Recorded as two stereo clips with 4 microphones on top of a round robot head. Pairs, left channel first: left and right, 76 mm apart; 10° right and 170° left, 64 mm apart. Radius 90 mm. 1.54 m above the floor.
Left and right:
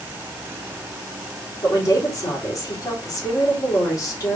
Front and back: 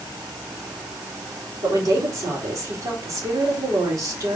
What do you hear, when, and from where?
1.6 s a woman speaking: 135° left, 4 m